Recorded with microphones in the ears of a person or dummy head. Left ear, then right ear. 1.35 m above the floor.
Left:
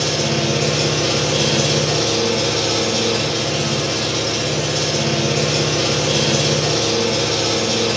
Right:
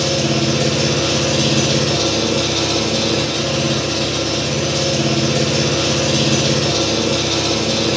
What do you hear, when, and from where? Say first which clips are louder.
0.0 s an engine running: right 1 dB; 30° right (ahead or behind), 1.7 m